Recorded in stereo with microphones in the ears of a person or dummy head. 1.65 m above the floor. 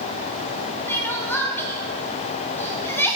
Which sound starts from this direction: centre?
Crying, at 0.9 s.